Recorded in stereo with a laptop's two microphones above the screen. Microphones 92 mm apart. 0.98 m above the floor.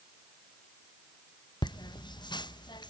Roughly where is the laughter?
Left.